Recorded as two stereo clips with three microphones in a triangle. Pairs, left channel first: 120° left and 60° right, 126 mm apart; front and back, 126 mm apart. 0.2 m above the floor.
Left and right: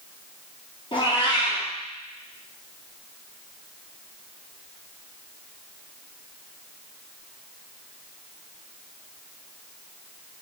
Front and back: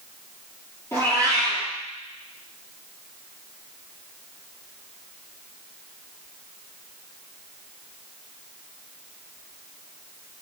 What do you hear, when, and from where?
0.9 s a cat meowing: 70° left, 1.7 m